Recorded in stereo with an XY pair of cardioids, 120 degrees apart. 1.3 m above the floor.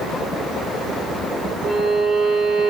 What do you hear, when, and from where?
1.6 s a violin: 55° right, 0.9 m